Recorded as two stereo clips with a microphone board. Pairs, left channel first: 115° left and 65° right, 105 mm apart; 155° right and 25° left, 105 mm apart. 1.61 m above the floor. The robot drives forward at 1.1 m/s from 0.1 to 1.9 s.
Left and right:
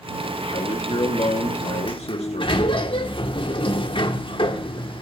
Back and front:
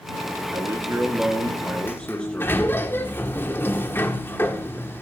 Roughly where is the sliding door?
Behind left.